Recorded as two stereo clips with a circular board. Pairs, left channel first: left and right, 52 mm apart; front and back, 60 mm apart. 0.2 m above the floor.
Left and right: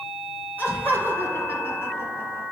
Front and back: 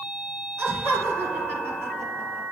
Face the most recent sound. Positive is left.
turn(degrees=130)